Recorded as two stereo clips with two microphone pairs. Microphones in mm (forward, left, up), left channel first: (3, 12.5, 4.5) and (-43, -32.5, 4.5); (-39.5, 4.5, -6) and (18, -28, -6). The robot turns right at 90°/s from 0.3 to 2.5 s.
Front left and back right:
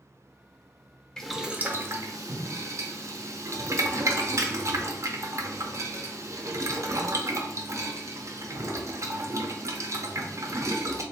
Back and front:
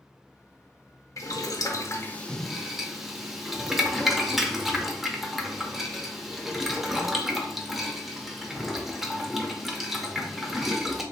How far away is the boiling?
About 0.5 m.